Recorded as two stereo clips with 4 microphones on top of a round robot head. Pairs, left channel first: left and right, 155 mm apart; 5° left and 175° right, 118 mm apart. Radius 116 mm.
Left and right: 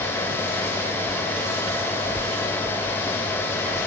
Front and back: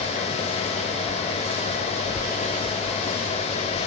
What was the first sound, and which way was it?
Only background noise.